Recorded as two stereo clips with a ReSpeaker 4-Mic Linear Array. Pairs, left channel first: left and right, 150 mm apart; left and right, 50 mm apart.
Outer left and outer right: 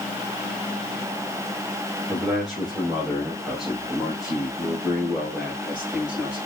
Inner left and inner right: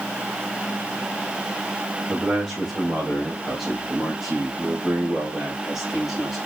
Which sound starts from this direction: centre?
A man speaking, at 2.1 s.